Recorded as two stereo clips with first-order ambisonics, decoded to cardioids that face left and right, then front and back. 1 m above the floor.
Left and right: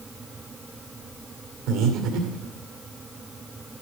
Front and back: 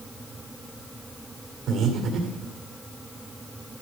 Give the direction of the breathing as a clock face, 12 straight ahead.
4 o'clock.